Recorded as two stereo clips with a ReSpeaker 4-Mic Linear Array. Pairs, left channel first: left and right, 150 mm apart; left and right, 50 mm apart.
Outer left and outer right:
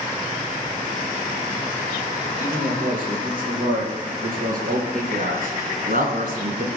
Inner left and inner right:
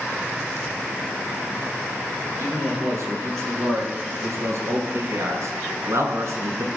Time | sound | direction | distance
2.4 | a man speaking | 65° right (ahead or behind) | 9 m